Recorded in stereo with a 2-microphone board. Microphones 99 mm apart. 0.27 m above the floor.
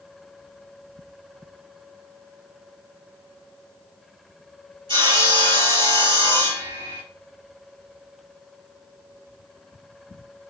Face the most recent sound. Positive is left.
turn(degrees=-70)  # may be behind; listen again after turning